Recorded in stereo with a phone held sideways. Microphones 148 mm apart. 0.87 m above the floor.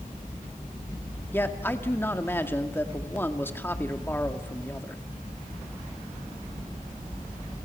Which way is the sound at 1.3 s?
15° left (ahead or behind).